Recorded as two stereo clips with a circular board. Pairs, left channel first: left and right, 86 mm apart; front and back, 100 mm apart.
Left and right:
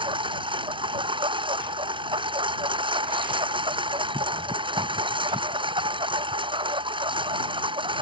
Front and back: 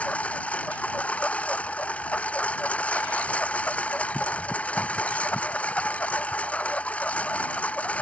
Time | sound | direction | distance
0.0 | a lawn mower | 80° right | ?